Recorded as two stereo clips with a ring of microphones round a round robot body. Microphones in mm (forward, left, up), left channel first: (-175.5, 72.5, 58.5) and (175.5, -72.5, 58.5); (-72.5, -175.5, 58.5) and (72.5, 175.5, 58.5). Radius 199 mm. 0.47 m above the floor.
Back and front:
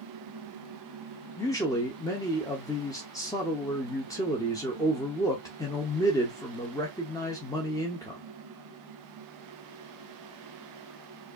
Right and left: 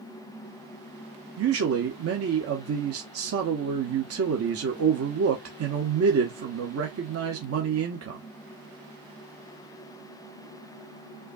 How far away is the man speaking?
About 0.9 m.